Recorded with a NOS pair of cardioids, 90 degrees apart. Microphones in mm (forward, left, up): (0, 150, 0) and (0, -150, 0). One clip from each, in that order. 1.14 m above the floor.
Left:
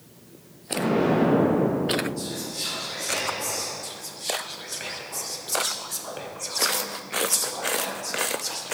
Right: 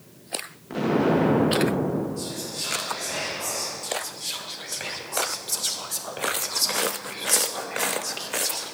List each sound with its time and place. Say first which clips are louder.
0.7 s an explosion: even; straight ahead, 1.0 m
2.2 s whispering: even; 5° left, 2 m
3.8 s whispering: right 2 dB; 10° right, 0.7 m